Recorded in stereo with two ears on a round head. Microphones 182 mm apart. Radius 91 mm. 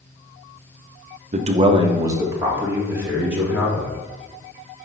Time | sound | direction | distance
1.3 | a man speaking | 40° right (ahead or behind) | 0.7 m